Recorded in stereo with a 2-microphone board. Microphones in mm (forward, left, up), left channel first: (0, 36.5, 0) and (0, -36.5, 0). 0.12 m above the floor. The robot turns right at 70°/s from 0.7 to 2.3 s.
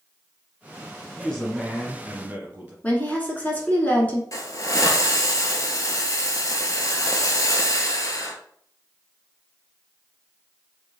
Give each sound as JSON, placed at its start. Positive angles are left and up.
{"t": 1.2, "sound": "a man speaking", "azimuth_deg": 150, "distance_m": 1.4}
{"t": 2.8, "sound": "a woman speaking", "side_deg": 25, "distance_m": 1.2}
{"t": 4.3, "sound": "a hiss", "side_deg": 50, "distance_m": 0.8}